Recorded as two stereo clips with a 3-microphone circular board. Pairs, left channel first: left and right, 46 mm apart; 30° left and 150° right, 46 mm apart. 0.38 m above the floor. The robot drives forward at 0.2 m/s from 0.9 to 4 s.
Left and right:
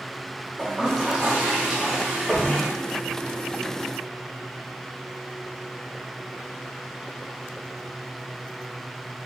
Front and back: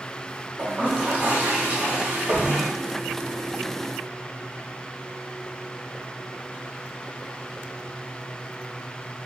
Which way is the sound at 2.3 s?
170° right.